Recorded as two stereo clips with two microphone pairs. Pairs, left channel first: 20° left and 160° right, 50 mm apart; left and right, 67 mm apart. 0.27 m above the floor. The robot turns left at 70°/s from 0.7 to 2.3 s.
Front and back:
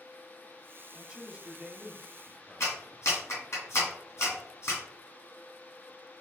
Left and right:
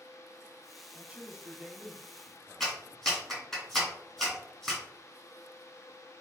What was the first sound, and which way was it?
A man speaking, 100° right.